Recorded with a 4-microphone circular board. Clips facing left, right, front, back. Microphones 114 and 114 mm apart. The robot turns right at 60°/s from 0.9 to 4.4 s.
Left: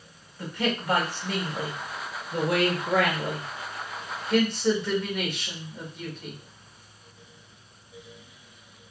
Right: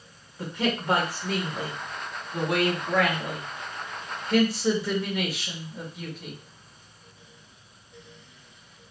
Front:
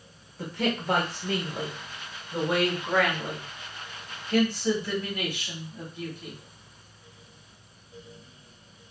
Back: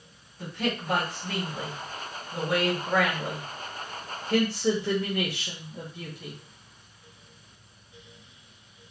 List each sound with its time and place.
0.4 s a man speaking: 25° right, 1.5 m; by 6.4 s 175° right, 1.5 m